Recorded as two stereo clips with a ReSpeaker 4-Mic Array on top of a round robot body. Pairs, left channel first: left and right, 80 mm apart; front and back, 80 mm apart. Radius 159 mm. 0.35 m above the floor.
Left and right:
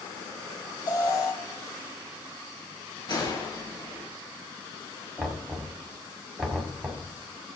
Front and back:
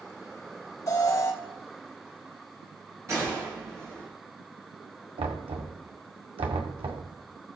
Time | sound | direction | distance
0.9 | an alarm | 55° left | 4 m
3.1 | a gunshot | 125° left | 4.5 m
5.2 | knocking | 175° left | 2 m